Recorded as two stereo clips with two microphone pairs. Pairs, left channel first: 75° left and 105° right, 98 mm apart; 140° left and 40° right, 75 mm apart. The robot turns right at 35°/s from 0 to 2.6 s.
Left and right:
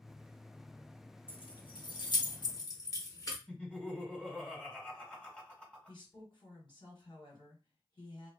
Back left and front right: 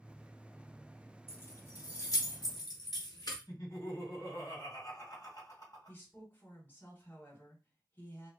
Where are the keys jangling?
80° left, 0.8 m; by 3.4 s 125° left, 0.8 m.